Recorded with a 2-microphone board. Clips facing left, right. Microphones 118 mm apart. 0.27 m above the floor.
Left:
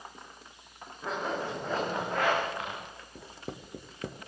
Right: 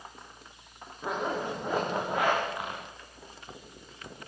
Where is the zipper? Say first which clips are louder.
Right 2 dB; 15° right (ahead or behind), 7.5 m.